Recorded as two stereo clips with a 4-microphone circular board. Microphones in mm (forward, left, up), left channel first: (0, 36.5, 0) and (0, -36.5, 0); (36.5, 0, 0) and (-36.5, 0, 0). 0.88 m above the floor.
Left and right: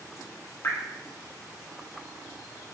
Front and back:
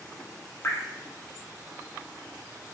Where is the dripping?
45° left, 0.6 m.